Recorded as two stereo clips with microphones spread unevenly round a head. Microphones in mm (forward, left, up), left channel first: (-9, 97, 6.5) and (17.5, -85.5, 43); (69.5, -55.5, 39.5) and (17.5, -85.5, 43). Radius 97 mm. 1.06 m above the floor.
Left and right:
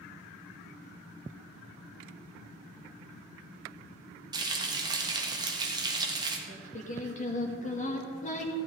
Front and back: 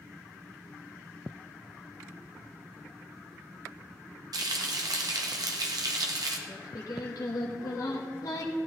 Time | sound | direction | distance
4.3 | frying | 155° right | 1.4 m
6.5 | singing | 50° left | 1.3 m